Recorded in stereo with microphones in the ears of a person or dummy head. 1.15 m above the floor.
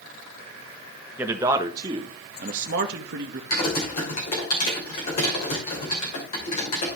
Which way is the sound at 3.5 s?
40° left (ahead or behind).